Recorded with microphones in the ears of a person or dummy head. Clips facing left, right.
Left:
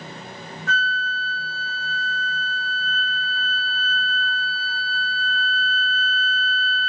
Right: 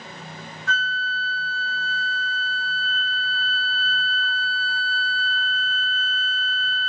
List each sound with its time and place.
0.7 s a flute: 35° left (ahead or behind), 2 m